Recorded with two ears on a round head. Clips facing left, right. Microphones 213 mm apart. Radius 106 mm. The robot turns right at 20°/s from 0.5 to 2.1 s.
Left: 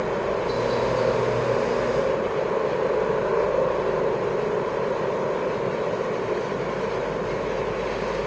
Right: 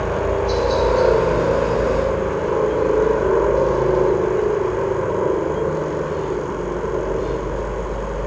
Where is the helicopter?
100° right; by 8.3 s 70° right.